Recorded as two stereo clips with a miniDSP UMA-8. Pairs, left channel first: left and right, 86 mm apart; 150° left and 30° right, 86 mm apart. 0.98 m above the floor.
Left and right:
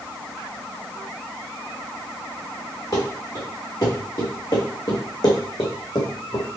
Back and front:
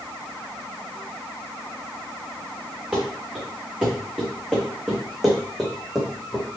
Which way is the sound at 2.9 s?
45° left.